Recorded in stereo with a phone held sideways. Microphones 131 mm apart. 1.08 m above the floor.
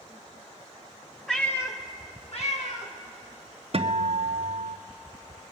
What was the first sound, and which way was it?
A cat meowing, 5° left (ahead or behind).